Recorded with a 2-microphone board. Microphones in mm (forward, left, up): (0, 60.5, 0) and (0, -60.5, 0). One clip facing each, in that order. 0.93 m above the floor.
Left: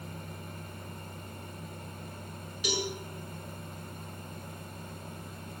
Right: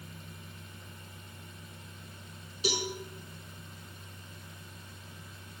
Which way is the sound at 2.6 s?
35° right (ahead or behind).